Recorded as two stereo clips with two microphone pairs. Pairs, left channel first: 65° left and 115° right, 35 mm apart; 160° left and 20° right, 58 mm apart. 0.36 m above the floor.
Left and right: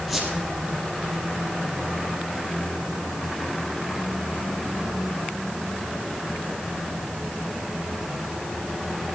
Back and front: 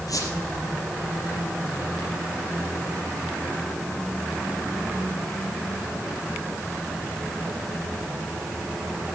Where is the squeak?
155° left, 5 m.